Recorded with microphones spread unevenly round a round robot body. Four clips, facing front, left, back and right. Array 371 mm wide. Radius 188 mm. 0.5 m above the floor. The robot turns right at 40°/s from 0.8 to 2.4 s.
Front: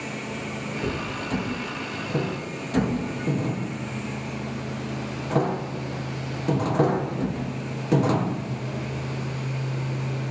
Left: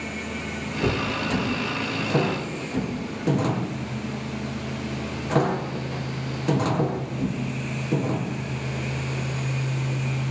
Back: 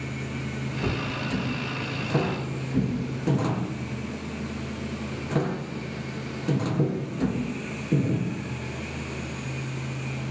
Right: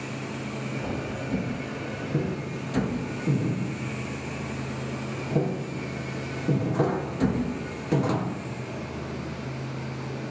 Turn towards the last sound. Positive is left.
turn(degrees=-175)